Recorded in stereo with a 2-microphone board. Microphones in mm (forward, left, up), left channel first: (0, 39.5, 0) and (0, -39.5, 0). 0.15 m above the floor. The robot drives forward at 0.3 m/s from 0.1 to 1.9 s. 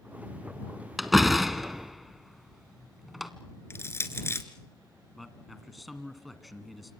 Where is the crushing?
35° left (ahead or behind), 1.5 m.